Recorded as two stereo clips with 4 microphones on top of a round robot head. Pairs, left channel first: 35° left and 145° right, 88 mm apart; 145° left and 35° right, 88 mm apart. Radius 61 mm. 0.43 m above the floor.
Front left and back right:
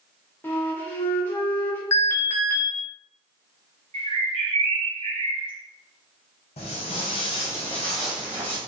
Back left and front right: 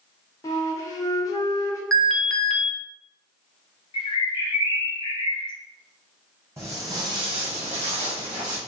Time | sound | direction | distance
0.4 | a flute | 100° left | 0.8 m
1.9 | an alarm | 55° left | 0.7 m
3.9 | a bird | 175° right | 0.6 m
6.6 | footsteps | 25° left | 1.2 m